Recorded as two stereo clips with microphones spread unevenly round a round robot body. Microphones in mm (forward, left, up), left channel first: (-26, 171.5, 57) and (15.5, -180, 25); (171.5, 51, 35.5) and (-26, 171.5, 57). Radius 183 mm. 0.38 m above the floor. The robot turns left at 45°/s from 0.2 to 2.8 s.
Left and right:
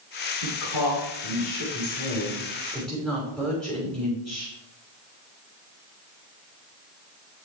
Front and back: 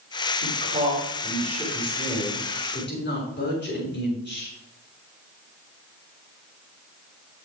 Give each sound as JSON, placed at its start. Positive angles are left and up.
{"t": 0.4, "sound": "a woman speaking", "azimuth_deg": 115, "distance_m": 6.0}